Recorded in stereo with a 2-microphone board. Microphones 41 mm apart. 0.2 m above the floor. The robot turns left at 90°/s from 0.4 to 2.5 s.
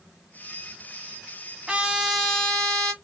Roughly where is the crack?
I don't hear a crack.